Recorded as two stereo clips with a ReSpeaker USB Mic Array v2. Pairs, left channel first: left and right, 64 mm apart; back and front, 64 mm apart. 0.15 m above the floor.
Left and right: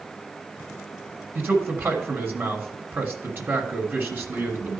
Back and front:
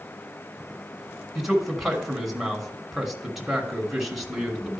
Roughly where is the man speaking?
Right.